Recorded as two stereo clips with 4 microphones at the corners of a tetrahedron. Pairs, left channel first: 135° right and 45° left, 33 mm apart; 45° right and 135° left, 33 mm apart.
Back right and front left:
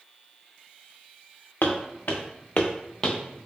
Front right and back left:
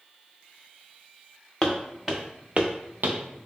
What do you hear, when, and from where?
1.6 s footsteps: 130° right, 0.9 m; by 3.2 s 165° left, 0.6 m